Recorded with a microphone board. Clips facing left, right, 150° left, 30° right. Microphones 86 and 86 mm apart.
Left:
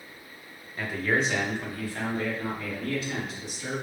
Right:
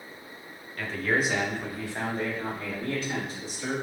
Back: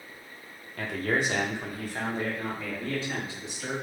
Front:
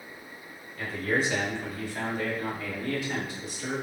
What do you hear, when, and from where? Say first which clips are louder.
0.8 s a man speaking: even, even; 160° left, 0.9 m; by 3.7 s 140° right, 3 m